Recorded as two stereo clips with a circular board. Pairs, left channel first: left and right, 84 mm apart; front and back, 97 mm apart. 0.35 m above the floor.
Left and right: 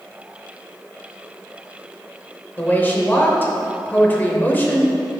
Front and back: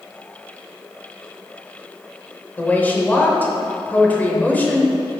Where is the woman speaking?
50° left, 1.0 m.